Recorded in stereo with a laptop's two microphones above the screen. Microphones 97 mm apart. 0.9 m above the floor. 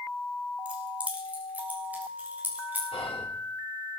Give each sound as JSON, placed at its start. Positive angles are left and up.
{"t": 0.7, "sound": "keys jangling", "side_deg": -15, "distance_m": 2.5}
{"t": 2.9, "sound": "whispering", "side_deg": 75, "distance_m": 2.0}